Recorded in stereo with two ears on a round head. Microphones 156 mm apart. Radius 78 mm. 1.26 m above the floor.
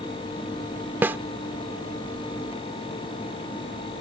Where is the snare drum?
15° right (ahead or behind).